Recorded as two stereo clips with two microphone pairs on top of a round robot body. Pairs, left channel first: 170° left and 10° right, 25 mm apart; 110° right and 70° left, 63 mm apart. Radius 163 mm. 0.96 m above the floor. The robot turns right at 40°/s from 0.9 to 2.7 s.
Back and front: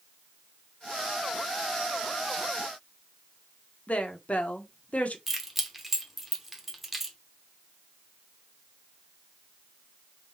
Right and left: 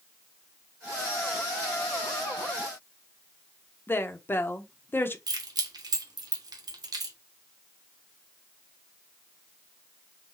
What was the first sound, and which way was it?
A woman speaking, 160° right.